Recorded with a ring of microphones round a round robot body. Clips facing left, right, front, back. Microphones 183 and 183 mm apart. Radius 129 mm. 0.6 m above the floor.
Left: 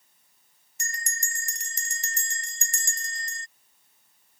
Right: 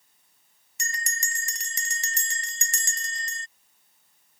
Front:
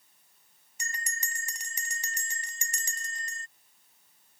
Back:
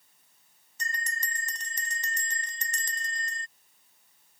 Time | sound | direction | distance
0.8 | a bell | 85° right | ?